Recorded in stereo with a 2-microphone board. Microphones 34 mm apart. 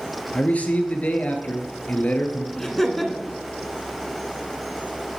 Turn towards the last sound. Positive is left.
turn(degrees=10)  # may be behind; listen again after turning